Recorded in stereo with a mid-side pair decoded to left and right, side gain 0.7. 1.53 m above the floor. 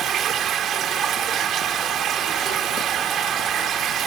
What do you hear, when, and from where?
0.0 s running water: 40° right